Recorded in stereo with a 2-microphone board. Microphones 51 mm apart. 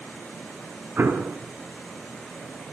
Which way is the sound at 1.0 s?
45° right (ahead or behind).